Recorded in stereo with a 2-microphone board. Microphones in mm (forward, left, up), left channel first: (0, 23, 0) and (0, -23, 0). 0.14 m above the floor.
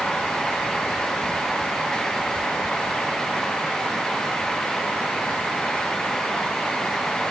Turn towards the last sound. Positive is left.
No sound to turn to.